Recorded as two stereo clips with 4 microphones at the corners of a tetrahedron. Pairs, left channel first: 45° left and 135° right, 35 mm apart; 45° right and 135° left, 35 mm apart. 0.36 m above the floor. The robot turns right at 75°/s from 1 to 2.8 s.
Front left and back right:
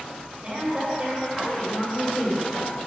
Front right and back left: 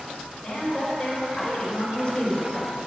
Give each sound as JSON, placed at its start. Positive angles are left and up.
{"t": 0.4, "sound": "a woman speaking", "azimuth_deg": -105, "distance_m": 1.3}